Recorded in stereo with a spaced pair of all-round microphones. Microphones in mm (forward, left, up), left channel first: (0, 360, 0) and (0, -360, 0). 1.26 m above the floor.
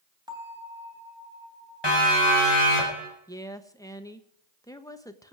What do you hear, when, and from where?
0.3 s a bell: 5° right (ahead or behind), 3.5 m
1.8 s a siren: 35° left (ahead or behind), 6 m; by 3.1 s 45° left (ahead or behind), 5 m
3.3 s a woman speaking: 5° left (ahead or behind), 1.2 m